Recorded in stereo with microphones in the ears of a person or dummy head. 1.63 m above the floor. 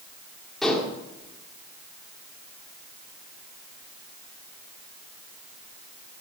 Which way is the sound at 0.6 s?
Centre (ahead or behind).